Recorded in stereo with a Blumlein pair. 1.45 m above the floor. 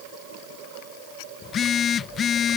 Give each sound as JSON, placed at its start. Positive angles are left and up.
{"t": 1.4, "sound": "a phone buzzing", "azimuth_deg": 25}